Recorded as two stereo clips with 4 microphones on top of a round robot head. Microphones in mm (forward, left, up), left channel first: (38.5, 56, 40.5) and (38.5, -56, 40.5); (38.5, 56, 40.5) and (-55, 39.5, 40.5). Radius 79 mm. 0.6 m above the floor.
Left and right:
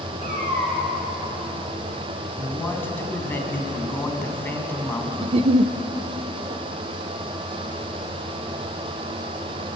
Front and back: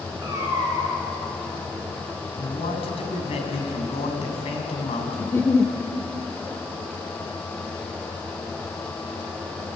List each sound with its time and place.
0.2 s a cat meowing: 100° right, 5.5 m
2.4 s a man speaking: 20° left, 4.5 m
5.2 s a giggle: 60° right, 0.7 m